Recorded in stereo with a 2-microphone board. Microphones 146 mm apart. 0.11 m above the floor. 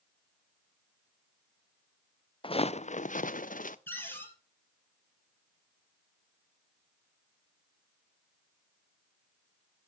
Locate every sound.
2.4 s footsteps: 40° left (ahead or behind), 0.6 m; by 3.8 s 80° left, 0.8 m
3.9 s a cupboard door: 15° left (ahead or behind), 3 m